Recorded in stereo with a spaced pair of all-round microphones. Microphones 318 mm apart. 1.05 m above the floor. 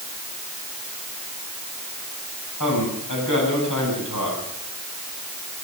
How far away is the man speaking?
About 7 m.